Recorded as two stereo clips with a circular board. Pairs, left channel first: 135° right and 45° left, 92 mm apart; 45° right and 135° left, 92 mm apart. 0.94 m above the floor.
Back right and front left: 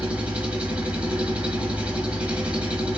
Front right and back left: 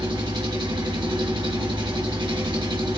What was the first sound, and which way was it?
An engine running, 120° left.